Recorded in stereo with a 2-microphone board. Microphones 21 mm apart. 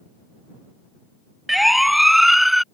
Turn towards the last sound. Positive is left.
turn(degrees=-10)  # may be behind; listen again after turning